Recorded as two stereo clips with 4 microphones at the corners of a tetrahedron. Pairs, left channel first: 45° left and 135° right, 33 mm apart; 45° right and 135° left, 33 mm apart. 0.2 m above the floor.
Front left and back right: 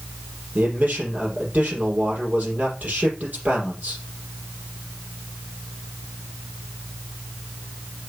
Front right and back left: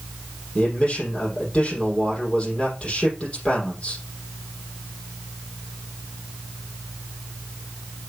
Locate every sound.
0.6 s a man speaking: 100° right, 5.5 m